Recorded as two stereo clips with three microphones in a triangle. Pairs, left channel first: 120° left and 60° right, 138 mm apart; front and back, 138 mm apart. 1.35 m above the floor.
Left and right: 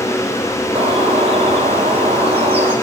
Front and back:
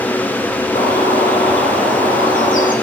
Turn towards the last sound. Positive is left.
turn(degrees=-10)